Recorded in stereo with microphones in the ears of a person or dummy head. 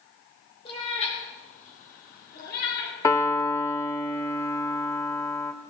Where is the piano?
10° left (ahead or behind), 0.9 m.